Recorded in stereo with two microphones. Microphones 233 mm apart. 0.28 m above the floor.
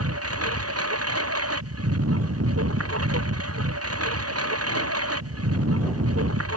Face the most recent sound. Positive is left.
turn(degrees=-70)  # may be behind; listen again after turning